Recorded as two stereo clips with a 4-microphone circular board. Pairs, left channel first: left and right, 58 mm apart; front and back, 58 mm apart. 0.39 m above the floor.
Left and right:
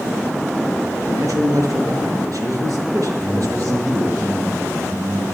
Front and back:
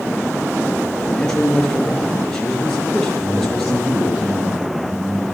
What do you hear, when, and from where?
1.1 s a man speaking: 85° right, 6 m
3.2 s a man speaking: 140° right, 4 m